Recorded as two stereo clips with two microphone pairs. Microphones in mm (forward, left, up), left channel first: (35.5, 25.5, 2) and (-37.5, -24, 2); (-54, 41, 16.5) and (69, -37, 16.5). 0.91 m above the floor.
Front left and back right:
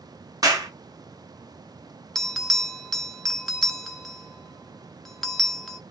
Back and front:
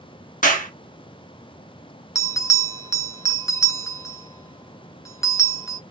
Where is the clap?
165° left, 1.2 m.